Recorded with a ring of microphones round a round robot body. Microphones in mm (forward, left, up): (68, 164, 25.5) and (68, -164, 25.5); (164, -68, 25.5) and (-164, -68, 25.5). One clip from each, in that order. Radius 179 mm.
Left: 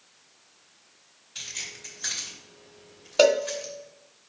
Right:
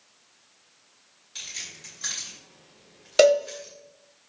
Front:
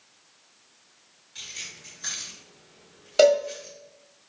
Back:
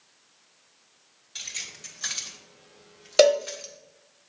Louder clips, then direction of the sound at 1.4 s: Left 1 dB, back 2 dB; 150° right.